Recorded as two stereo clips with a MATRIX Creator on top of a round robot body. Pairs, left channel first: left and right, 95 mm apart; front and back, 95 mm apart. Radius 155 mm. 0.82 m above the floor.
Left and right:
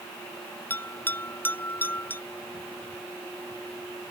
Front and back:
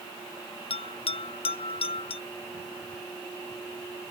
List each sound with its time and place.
0.7 s a bell: 20° left